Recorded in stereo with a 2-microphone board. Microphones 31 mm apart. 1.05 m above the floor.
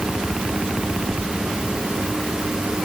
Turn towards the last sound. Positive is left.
No sound to turn to.